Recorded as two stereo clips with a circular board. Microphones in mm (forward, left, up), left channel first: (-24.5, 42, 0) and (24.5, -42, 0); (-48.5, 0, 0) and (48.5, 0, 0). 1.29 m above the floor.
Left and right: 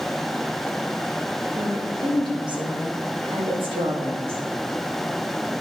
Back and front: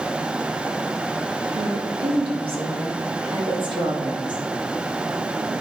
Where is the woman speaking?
10° right, 1.9 m; by 4.5 s 40° right, 3 m.